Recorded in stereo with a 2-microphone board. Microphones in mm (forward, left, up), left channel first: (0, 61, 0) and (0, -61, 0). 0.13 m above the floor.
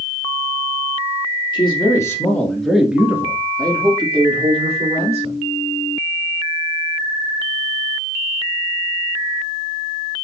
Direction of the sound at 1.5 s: 40° left (ahead or behind).